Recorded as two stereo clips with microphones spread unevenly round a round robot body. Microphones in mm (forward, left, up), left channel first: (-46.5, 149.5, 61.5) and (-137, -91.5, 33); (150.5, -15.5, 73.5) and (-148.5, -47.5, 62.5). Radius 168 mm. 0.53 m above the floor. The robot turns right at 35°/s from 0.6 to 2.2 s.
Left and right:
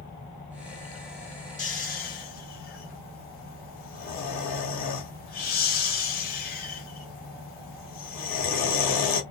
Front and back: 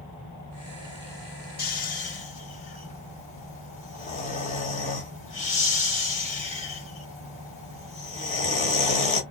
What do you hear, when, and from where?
1.6 s snoring: 30° left, 1.3 m; by 9.2 s 50° left, 1.3 m